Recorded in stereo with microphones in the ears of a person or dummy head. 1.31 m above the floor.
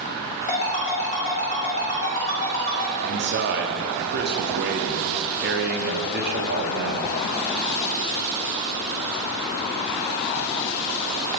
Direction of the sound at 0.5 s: 40° left (ahead or behind).